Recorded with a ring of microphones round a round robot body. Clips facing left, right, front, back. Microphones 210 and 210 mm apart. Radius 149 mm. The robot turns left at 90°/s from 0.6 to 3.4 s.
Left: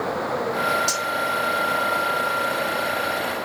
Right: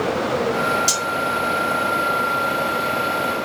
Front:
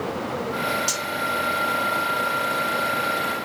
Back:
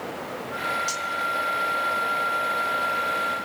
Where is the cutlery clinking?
35° right, 0.8 m; by 1.1 s 50° right, 0.8 m.